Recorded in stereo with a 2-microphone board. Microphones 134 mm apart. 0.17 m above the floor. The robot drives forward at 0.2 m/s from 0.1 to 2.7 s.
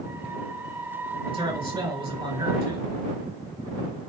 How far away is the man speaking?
About 2 m.